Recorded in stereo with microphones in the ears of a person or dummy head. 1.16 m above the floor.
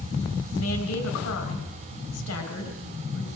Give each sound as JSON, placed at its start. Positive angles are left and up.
{"t": 0.5, "sound": "a woman speaking", "side_deg": 80, "distance_m": 5.0}